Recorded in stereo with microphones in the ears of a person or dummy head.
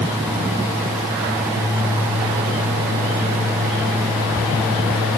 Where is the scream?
I don't hear a scream.